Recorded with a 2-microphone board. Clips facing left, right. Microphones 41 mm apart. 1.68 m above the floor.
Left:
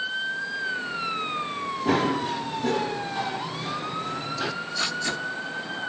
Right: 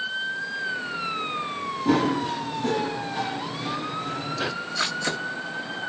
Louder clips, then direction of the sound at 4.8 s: Right 2 dB; 85° right.